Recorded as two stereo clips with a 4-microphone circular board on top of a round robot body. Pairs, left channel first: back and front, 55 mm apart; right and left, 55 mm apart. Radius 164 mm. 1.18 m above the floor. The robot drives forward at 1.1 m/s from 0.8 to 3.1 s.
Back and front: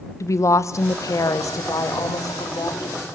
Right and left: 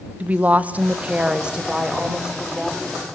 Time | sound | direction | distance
0.2 | a woman speaking | 155° left | 1.1 m